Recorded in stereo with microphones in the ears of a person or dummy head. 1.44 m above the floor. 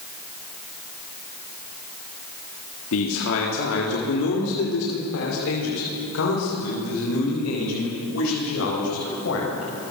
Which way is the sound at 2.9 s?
80° left.